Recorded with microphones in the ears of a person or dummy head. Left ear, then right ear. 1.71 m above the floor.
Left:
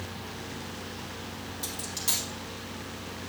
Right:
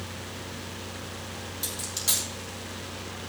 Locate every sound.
1.6 s a dropped coin: centre (ahead or behind), 3 m